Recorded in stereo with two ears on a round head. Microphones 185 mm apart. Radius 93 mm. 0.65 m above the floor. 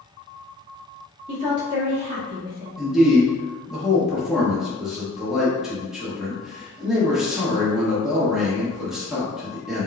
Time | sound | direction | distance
1.3 | a woman speaking | 30° right (ahead or behind) | 1.2 m
2.8 | a man speaking | centre (ahead or behind) | 0.9 m